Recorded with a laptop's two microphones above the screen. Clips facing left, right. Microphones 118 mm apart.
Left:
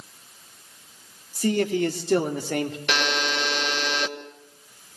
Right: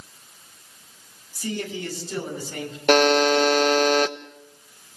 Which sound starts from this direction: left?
A man speaking, at 1.4 s.